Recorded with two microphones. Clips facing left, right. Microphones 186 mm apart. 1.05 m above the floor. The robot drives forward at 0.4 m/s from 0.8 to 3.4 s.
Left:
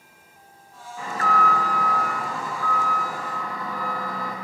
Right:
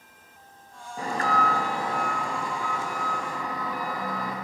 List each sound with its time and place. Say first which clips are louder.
1.0 s an alarm: left 1 dB; 40° right (ahead or behind), 0.8 m; by 4.3 s 20° right (ahead or behind), 1.7 m